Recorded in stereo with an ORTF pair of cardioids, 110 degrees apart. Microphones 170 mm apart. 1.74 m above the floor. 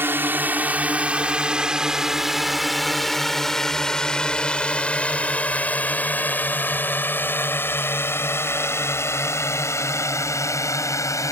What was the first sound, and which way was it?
A drone, 10° right.